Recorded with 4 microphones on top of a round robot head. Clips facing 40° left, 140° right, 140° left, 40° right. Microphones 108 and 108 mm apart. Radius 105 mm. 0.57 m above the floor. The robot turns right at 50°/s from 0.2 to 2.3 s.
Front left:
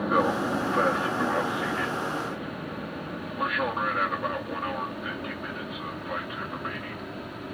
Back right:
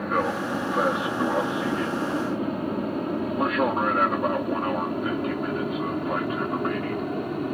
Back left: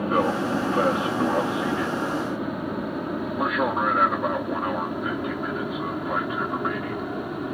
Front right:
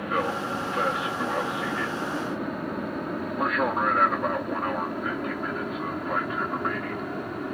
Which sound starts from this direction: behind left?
An aircraft, at 0.0 s.